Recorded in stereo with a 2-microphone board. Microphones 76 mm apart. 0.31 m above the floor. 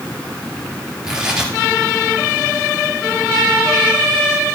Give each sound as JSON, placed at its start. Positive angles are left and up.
{"t": 1.0, "sound": "tearing paper", "side_deg": -10, "distance_m": 4.0}